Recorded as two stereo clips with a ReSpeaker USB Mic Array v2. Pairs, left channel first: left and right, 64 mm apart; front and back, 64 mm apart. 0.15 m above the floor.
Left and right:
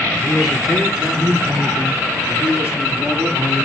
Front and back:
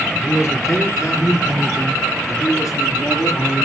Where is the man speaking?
5° right, 2 m; by 3.6 s 25° right, 4.5 m.